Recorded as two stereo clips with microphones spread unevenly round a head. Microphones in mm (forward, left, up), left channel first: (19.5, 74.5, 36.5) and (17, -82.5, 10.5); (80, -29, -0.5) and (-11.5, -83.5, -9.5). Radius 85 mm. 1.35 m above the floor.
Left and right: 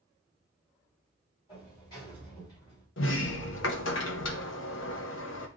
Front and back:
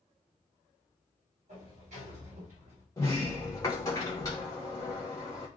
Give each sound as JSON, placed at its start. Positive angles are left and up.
{"t": 1.5, "sound": "a sliding door", "azimuth_deg": 155, "distance_m": 5.0}
{"t": 3.0, "sound": "a sliding door", "azimuth_deg": 100, "distance_m": 0.8}